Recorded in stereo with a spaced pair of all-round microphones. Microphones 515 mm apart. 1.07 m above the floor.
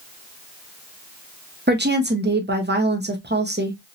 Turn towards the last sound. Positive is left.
turn(degrees=-20)  # may be behind; listen again after turning